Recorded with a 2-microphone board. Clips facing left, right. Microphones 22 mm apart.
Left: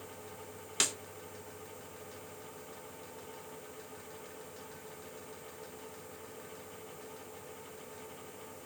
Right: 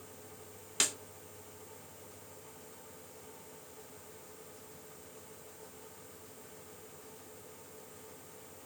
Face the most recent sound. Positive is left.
turn(degrees=0)  # may be behind; listen again after turning